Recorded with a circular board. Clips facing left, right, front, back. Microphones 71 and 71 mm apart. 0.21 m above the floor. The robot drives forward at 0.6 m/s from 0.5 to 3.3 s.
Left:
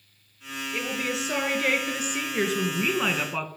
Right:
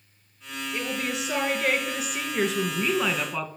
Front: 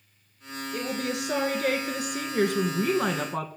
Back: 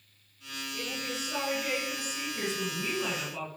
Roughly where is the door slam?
I don't hear a door slam.